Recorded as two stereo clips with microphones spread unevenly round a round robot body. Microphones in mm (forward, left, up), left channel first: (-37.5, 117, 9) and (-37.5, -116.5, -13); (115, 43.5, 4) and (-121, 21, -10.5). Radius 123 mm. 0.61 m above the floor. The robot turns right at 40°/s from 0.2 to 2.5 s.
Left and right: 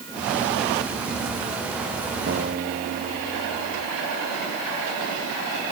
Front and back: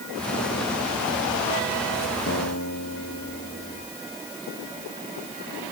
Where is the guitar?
40° right; by 3.9 s 35° right.